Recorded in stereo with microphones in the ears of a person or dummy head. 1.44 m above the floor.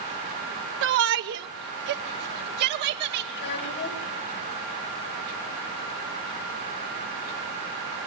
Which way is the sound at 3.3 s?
50° left (ahead or behind).